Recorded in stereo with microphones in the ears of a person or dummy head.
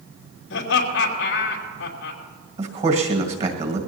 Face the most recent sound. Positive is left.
turn(degrees=-40)  # may be behind; listen again after turning